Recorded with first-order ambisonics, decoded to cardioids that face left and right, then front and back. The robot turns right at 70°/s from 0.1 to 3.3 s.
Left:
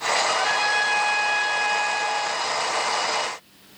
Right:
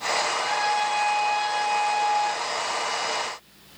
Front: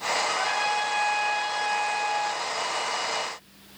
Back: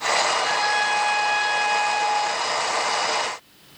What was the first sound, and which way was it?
A trumpet, 75° left.